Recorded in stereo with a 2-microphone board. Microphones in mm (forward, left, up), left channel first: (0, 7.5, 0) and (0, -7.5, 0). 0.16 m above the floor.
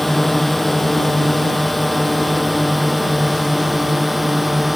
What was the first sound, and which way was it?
A drone, 15° left (ahead or behind).